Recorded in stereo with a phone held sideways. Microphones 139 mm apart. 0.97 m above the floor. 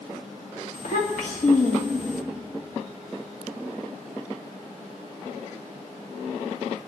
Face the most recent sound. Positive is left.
turn(degrees=75)  # may be behind; listen again after turning